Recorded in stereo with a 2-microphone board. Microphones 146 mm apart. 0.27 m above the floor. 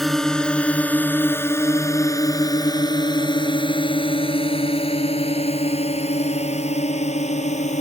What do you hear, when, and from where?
0.0 s a drone: centre (ahead or behind); by 7.8 s 55° left (ahead or behind)